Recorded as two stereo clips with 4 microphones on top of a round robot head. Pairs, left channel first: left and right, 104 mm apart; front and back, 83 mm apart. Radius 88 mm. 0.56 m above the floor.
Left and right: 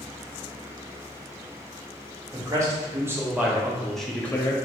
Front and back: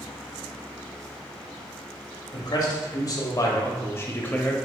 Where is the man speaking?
40° right, 1.3 m; by 4.6 s 65° left, 0.8 m.